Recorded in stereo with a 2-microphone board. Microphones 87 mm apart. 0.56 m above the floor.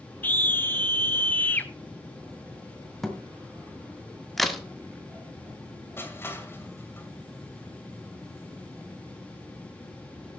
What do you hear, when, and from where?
0.2 s a scream: 20° left (ahead or behind), 0.7 m
3.0 s a thud: centre (ahead or behind), 1.8 m
4.4 s a crack: centre (ahead or behind), 1.3 m
6.0 s crushing: 25° left (ahead or behind), 2.5 m